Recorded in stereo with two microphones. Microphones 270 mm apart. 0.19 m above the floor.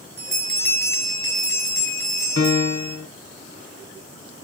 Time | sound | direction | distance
0.2 | a bell | 40° right (ahead or behind) | 1.9 m
2.4 | a piano | 60° left (ahead or behind) | 0.8 m